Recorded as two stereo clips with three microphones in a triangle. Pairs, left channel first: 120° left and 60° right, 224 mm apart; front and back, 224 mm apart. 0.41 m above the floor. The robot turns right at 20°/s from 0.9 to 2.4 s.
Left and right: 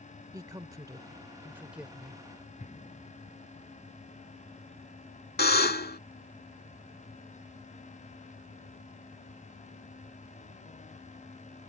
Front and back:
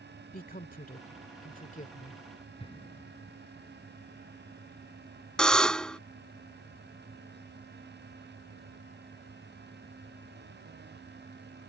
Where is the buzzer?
85° left.